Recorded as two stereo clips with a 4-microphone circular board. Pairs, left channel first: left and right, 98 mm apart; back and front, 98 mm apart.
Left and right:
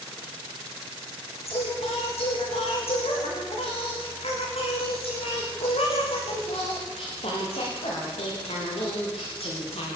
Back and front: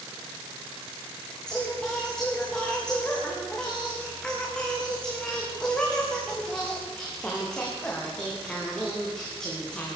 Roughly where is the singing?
Left.